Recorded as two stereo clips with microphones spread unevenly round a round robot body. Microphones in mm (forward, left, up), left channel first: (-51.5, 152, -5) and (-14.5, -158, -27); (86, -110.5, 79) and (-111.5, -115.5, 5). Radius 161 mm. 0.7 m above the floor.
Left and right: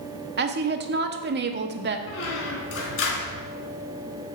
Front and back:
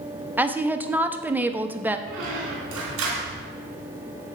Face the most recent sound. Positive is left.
turn(degrees=145)